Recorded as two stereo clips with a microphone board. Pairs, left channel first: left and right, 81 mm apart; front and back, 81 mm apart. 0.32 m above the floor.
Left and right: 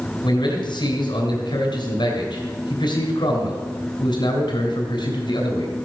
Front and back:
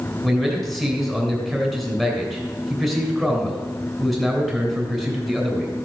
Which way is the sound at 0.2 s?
95° left.